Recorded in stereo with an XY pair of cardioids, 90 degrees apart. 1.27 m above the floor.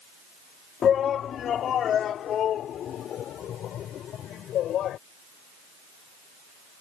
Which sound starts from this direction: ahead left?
A shout, at 0.8 s.